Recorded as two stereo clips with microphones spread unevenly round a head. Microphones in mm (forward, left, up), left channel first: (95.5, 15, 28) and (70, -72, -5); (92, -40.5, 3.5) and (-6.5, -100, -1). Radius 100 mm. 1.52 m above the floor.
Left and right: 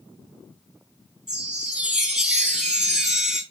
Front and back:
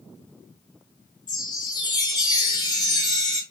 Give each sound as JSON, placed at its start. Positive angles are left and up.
{"t": 1.3, "sound": "a chime", "azimuth_deg": -5, "distance_m": 2.0}